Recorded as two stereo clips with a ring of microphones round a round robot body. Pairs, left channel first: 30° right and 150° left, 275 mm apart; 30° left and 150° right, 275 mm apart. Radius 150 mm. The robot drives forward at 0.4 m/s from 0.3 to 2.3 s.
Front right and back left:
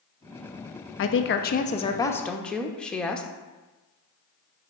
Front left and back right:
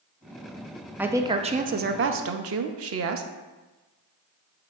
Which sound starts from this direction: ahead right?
A woman speaking, at 1.0 s.